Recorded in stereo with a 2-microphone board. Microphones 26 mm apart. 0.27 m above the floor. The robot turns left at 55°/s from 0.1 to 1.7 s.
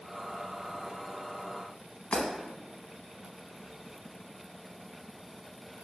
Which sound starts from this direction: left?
Breaking glass, at 2.1 s.